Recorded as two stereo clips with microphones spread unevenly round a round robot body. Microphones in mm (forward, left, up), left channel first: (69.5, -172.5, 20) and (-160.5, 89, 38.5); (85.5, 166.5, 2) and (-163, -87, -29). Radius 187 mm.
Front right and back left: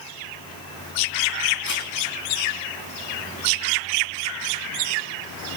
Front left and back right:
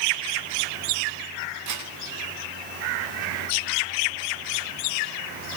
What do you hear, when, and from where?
1.7 s a camera shutter: 100° right, 9 m